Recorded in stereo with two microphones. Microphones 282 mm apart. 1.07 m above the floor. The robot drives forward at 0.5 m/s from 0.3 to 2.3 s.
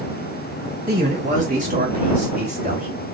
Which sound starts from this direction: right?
A man speaking, at 0.9 s.